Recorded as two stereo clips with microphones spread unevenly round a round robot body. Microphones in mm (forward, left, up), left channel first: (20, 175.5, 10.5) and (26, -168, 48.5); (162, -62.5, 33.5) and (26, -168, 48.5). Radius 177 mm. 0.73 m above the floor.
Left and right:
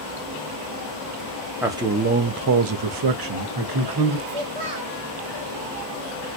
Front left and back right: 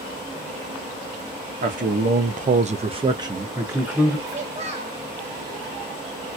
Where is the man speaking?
175° right, 0.7 m; by 4.2 s 55° right, 1.3 m.